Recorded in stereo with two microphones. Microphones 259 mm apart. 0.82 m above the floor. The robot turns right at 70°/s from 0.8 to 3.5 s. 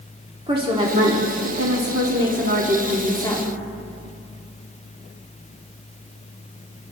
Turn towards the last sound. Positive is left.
turn(degrees=30)